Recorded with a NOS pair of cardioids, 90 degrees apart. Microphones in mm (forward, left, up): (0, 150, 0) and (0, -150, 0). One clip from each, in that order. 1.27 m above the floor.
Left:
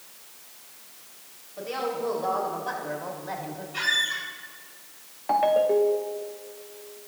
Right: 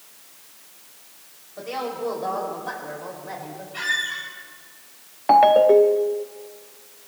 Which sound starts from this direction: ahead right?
A ringtone, at 5.3 s.